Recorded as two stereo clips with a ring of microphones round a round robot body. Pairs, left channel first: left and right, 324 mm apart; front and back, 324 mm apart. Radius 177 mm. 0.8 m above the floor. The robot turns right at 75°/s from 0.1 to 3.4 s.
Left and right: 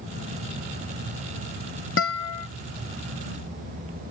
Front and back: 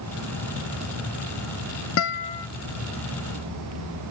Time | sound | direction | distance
2.0 | a guitar | 45° left | ?